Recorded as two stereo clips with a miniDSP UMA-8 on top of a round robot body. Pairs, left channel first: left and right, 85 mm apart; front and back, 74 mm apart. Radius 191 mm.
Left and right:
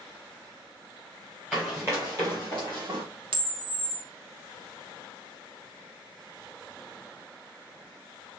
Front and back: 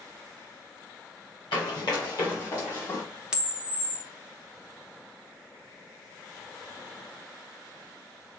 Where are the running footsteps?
10° right, 1.3 m; by 3.0 s 60° right, 2.5 m.